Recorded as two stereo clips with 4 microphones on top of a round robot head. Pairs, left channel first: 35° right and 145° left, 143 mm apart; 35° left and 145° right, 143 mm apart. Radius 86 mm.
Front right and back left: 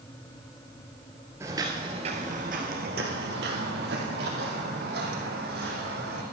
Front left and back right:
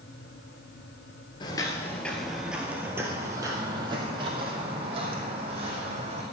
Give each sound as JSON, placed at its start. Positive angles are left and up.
{"t": 1.4, "sound": "footsteps", "azimuth_deg": 80, "distance_m": 1.3}